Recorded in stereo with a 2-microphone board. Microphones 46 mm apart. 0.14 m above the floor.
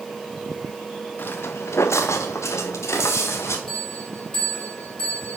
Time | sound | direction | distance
1.2 | footsteps | 45° left (ahead or behind) | 1.0 m
3.7 | a bell | 20° left (ahead or behind) | 4 m